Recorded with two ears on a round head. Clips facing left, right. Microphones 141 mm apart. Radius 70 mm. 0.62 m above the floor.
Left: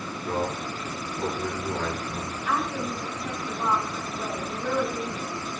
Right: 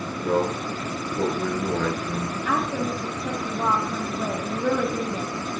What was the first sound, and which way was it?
A man speaking, 55° right (ahead or behind).